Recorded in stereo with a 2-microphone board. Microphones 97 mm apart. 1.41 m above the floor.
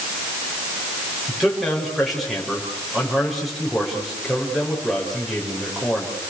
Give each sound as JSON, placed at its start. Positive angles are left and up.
{"t": 1.3, "sound": "a man speaking", "side_deg": 0, "distance_m": 6.5}